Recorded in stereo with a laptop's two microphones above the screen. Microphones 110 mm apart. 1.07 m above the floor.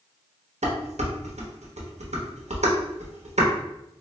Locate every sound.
0.6 s dishes clattering: 85° right, 0.8 m